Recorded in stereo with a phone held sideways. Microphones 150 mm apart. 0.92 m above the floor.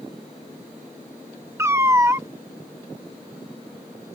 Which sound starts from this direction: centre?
A cat meowing, at 1.6 s.